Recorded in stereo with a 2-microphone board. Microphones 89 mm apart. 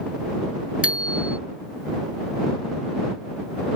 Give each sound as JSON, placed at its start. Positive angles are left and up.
{"t": 0.8, "sound": "a bicycle bell", "side_deg": -15}